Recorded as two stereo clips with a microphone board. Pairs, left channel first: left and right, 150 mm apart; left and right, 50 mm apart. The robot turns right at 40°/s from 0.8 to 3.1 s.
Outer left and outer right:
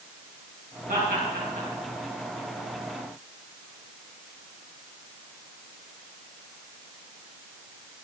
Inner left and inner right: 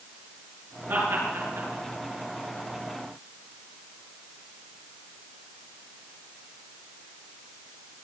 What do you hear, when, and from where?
0.9 s laughter: 65° right (ahead or behind), 5.5 m; by 1.7 s 75° right (ahead or behind), 5.5 m